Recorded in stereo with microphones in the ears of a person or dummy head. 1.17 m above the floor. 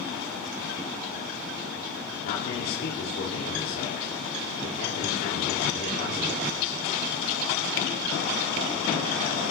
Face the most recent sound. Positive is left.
turn(degrees=60)  # may be behind; listen again after turning